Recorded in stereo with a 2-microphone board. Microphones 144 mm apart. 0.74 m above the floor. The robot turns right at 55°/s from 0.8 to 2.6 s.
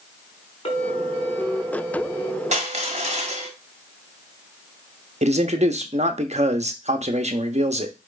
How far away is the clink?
About 3.5 m.